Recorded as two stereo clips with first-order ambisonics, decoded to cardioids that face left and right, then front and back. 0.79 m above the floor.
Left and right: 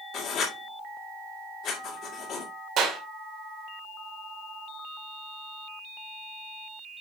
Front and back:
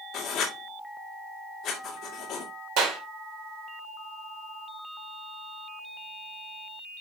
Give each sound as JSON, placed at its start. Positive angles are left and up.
{"t": 0.1, "sound": "writing", "azimuth_deg": 50, "distance_m": 1.9}
{"t": 2.8, "sound": "a clap", "azimuth_deg": -145, "distance_m": 2.0}